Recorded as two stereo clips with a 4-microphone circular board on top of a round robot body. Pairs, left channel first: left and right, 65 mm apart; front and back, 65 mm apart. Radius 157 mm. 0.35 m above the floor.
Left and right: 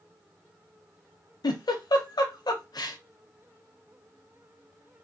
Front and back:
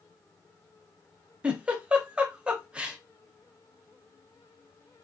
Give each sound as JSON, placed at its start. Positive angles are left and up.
{"t": 1.4, "sound": "a giggle", "azimuth_deg": 105, "distance_m": 0.6}